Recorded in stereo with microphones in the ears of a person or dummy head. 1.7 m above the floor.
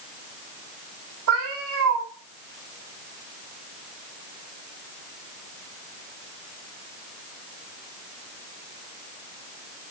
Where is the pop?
I don't hear a pop.